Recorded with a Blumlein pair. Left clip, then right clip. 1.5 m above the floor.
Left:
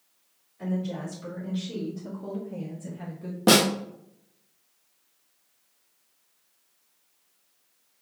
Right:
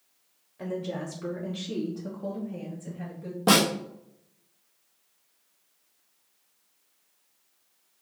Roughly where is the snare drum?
Ahead.